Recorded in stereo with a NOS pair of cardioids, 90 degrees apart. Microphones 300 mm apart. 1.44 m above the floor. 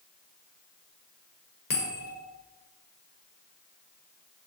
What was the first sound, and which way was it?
A bell, 30° left.